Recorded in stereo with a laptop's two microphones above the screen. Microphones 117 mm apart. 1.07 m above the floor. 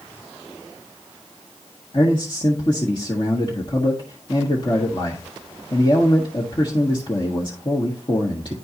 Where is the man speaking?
40° left (ahead or behind), 1.6 m.